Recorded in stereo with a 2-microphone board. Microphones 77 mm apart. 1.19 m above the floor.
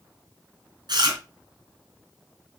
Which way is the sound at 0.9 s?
65° right (ahead or behind).